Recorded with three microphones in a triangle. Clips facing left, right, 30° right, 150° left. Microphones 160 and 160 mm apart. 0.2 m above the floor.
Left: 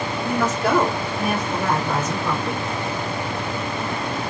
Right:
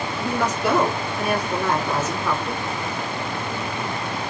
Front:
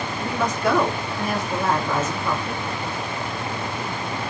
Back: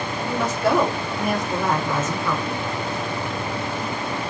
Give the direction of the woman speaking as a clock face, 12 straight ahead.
8 o'clock.